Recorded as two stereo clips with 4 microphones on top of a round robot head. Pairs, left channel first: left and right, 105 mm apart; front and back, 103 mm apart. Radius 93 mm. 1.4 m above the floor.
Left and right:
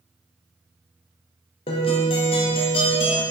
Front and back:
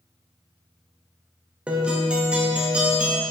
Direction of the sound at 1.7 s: 100° left.